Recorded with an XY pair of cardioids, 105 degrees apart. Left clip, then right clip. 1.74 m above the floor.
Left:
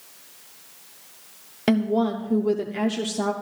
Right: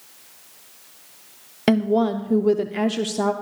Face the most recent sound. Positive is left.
turn(degrees=-25)